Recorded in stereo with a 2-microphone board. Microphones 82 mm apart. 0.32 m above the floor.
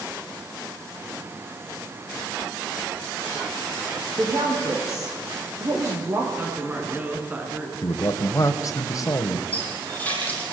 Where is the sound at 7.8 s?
40° left (ahead or behind), 2 m.